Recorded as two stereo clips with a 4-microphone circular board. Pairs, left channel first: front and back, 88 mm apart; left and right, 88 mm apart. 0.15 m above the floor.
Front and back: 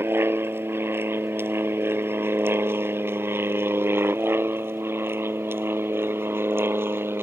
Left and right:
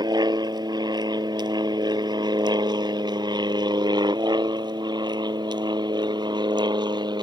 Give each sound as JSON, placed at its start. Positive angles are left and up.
{"t": 0.0, "sound": "an aircraft", "azimuth_deg": -120}